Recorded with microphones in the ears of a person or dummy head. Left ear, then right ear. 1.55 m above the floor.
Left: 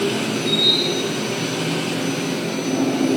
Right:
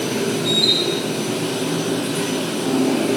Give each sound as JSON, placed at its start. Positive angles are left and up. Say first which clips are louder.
{"t": 0.0, "sound": "a machine running", "louder": "even", "side_deg": -35, "distance_m": 1.0}